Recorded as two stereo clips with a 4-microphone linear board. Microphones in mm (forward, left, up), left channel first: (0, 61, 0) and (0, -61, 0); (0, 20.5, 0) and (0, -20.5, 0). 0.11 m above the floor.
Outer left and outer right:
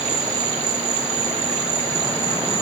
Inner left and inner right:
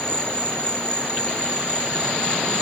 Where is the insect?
60° right (ahead or behind), 0.8 m.